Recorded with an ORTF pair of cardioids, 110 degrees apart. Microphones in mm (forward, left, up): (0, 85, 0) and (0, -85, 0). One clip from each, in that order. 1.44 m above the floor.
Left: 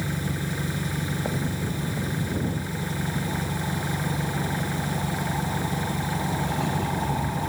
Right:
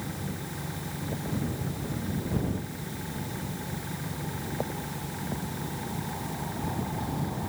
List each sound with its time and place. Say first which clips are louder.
0.0 s an engine running: left 6 dB; 55° left